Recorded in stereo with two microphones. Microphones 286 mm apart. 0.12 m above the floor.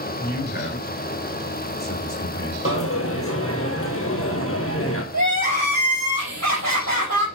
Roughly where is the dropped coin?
Left.